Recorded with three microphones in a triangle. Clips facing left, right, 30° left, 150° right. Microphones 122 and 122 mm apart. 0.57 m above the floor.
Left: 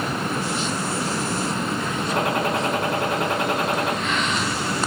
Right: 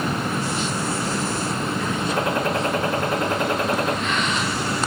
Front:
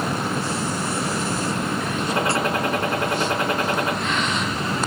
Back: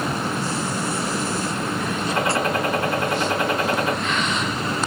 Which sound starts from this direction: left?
A gunshot, at 2.1 s.